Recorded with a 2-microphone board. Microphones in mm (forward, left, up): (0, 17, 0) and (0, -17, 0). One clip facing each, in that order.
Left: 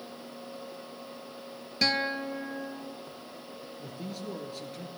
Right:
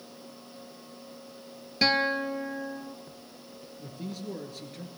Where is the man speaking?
Centre (ahead or behind), 2.5 m.